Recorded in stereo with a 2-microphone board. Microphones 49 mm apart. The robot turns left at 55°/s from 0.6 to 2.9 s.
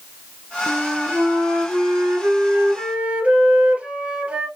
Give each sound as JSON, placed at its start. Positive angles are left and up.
{"t": 0.7, "sound": "a flute", "azimuth_deg": -25, "distance_m": 1.7}